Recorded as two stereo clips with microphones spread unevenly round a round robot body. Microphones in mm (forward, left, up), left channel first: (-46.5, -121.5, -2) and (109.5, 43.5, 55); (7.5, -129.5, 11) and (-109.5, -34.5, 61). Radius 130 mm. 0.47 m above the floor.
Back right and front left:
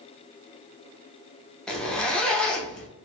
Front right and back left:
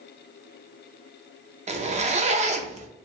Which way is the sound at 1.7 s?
170° left.